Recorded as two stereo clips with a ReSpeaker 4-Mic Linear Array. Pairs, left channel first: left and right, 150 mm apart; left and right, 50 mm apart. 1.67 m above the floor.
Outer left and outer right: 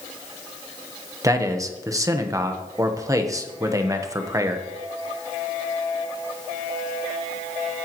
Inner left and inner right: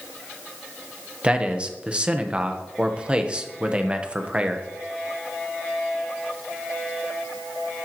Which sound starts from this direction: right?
A man speaking, at 1.2 s.